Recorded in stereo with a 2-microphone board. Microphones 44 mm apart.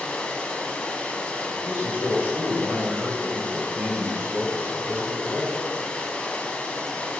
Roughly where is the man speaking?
Right.